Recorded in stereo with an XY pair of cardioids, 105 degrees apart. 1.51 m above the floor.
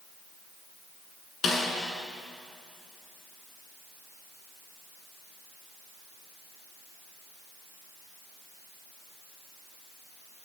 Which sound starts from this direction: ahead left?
A snare drum, at 1.4 s.